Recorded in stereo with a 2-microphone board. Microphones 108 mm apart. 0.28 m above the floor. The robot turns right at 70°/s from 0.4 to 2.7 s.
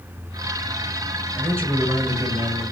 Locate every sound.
1.4 s a man speaking: 20° right (ahead or behind), 0.9 m; by 2.6 s 5° right (ahead or behind), 0.9 m